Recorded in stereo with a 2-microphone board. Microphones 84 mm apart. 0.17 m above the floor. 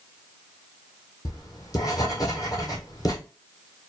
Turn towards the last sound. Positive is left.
turn(degrees=50)  # may be behind; listen again after turning